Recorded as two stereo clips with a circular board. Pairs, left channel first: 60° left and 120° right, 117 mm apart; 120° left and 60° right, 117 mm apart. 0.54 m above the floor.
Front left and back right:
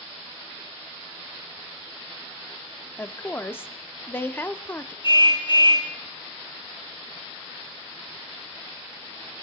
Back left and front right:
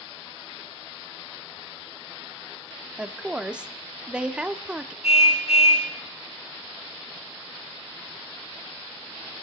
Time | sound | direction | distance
3.0 | a woman speaking | 10° left | 0.7 m
5.0 | a car horn | 105° left | 3 m